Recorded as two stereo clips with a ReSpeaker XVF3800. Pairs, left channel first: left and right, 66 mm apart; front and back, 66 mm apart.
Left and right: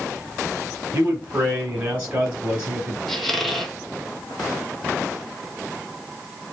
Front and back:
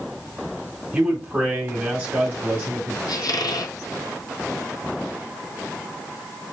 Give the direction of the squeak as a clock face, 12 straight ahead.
12 o'clock.